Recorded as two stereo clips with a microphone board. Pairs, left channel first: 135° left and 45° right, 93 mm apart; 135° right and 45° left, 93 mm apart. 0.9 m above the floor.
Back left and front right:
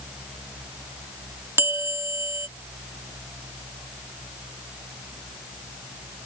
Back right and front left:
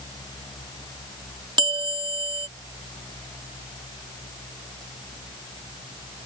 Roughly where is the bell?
Ahead.